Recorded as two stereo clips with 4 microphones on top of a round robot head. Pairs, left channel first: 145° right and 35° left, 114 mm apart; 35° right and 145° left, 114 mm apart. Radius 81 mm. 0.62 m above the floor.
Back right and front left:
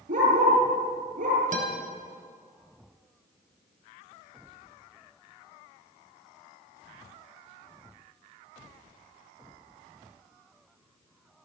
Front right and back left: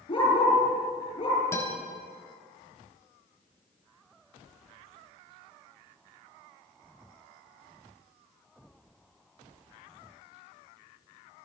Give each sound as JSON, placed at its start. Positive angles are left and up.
{"t": 0.1, "sound": "a dog barking", "azimuth_deg": 15, "distance_m": 8.5}
{"t": 1.5, "sound": "a guitar", "azimuth_deg": 30, "distance_m": 3.5}